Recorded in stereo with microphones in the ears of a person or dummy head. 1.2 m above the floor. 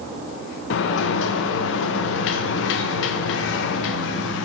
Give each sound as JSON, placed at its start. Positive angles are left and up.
{"t": 0.7, "sound": "a sliding door", "side_deg": 75, "distance_m": 0.5}